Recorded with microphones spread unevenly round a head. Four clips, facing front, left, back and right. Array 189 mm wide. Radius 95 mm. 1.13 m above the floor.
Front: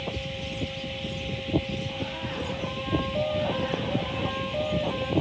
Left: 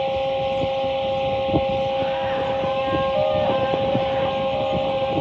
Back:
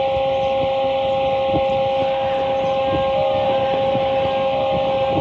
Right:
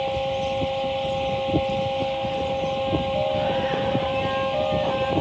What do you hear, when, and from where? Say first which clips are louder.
0.0 s a fan: left 3 dB, back 17 dB; 165° left